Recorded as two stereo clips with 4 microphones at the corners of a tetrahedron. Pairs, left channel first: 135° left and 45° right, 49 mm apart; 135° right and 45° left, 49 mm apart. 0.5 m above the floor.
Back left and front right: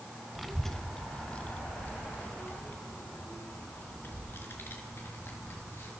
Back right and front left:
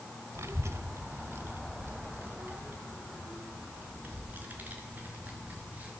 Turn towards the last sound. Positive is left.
turn(degrees=100)